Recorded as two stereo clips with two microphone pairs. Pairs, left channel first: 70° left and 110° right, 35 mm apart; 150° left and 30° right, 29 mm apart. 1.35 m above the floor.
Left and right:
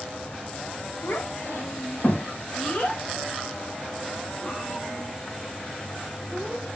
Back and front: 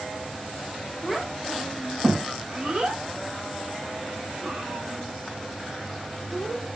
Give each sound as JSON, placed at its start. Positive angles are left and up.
{"t": 1.0, "sound": "a child speaking", "azimuth_deg": 60, "distance_m": 1.3}